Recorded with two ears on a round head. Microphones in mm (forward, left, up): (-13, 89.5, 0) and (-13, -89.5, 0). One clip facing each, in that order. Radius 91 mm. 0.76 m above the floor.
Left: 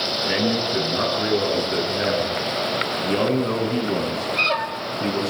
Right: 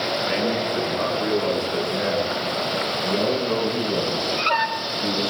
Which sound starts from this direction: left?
A man speaking, at 0.2 s.